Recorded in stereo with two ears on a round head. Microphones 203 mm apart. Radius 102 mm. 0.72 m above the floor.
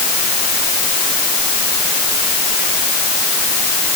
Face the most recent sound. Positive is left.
No sound to turn to.